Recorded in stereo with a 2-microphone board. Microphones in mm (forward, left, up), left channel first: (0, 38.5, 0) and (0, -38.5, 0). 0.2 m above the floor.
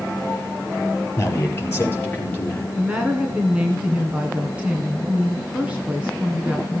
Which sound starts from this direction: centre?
A woman speaking, at 2.8 s.